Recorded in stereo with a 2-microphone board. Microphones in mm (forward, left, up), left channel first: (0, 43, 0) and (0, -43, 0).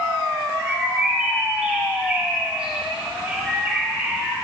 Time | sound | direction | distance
0.6 | a bird | 15° right (ahead or behind) | 1.6 m